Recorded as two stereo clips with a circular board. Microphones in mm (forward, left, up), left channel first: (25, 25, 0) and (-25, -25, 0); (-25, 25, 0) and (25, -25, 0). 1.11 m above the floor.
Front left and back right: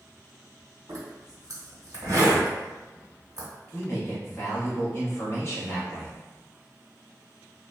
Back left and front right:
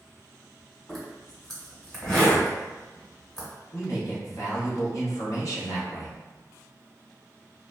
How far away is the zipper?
About 1.1 m.